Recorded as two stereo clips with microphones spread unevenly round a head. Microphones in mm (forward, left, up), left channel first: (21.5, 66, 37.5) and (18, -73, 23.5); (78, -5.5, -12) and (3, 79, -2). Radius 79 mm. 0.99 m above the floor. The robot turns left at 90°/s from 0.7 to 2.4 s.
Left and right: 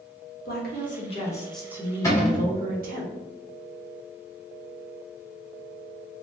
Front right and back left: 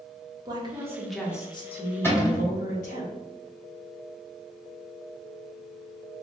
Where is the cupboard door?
20° left, 1.7 m; by 2.5 s 10° right, 1.7 m.